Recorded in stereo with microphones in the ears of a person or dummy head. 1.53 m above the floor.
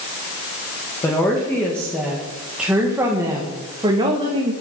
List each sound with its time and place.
1.0 s a woman speaking: 15° left (ahead or behind), 2 m; by 4.5 s 35° right (ahead or behind), 2 m